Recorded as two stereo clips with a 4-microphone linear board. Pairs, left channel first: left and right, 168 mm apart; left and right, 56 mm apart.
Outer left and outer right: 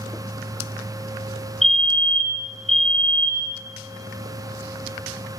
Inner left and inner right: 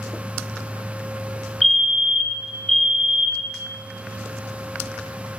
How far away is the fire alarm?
About 2 m.